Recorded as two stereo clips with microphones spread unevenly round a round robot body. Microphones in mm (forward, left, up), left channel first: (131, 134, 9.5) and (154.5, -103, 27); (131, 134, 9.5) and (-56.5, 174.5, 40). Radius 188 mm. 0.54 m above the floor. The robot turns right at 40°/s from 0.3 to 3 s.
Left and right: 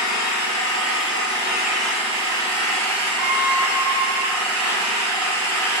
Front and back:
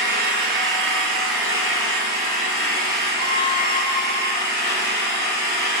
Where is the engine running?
155° left, 4 m; by 5.8 s 95° right, 4 m.